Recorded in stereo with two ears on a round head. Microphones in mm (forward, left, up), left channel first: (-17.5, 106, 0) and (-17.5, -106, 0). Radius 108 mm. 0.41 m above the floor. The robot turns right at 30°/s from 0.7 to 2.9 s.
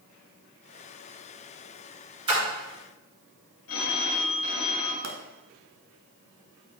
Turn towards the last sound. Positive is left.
turn(degrees=-65)  # may be behind; listen again after turning